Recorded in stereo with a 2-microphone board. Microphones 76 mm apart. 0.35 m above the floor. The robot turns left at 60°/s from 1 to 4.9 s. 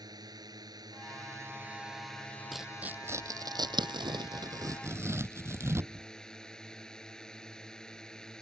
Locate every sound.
0.0 s a drone: 115° right; by 8.4 s 10° left
2.5 s tearing paper: centre (ahead or behind); by 6.0 s 35° right (ahead or behind)